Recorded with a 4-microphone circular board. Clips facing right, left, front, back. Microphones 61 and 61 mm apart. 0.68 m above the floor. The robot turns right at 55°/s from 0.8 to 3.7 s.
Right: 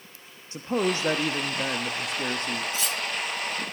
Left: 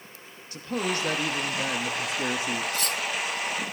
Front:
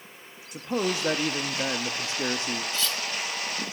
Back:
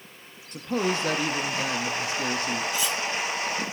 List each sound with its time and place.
0.5 s a man speaking: 65° right, 0.8 m; by 2.6 s 35° left, 0.8 m
2.7 s cutlery clinking: 105° left, 0.5 m; by 3.0 s 120° left, 0.5 m